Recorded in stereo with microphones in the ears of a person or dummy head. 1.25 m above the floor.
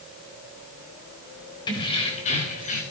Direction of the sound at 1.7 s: 15° left (ahead or behind).